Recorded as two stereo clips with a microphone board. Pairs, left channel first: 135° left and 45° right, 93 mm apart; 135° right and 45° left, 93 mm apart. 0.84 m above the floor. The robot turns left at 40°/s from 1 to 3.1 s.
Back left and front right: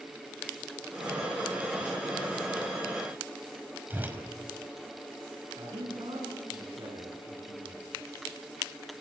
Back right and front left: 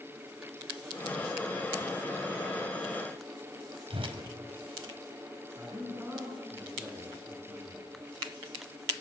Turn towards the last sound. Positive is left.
turn(degrees=-20)